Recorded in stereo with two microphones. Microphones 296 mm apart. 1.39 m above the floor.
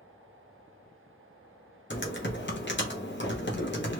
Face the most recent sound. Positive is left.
turn(degrees=40)  # may be behind; listen again after turning